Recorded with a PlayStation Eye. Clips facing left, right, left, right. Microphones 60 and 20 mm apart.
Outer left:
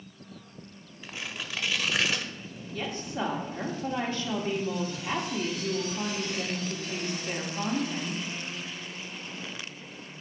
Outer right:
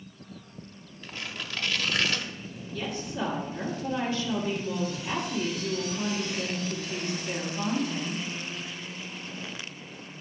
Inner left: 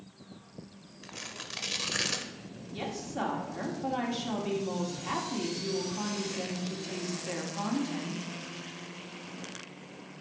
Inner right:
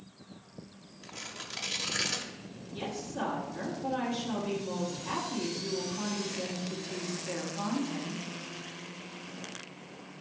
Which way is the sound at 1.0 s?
10° left (ahead or behind).